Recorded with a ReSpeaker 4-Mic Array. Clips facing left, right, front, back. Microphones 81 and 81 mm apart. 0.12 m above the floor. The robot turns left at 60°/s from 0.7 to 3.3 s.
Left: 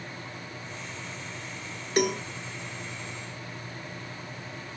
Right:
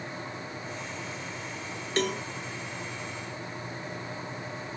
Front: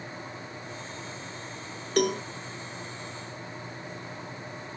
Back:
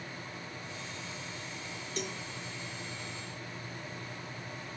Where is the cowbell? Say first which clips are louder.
Left 3 dB, front 15 dB; 15° left; by 2.2 s straight ahead.